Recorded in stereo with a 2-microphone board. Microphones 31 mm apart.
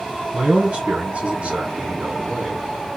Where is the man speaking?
50° right (ahead or behind), 2.5 m.